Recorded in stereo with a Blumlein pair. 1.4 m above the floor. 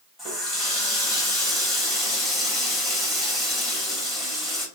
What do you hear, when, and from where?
0.2 s a running tap: straight ahead, 1.4 m